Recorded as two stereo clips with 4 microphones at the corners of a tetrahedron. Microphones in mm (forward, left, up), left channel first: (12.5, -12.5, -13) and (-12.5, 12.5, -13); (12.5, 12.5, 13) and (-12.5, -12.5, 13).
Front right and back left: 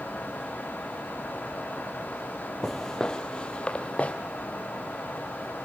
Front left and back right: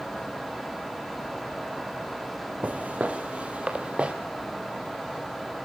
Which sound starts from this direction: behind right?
Footsteps, at 2.6 s.